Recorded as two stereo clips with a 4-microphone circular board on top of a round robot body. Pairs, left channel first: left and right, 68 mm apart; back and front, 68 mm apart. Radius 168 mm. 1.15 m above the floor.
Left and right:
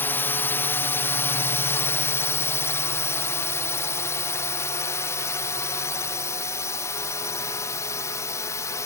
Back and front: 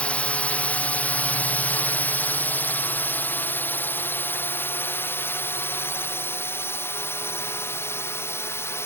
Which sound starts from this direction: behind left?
A drone, at 0.0 s.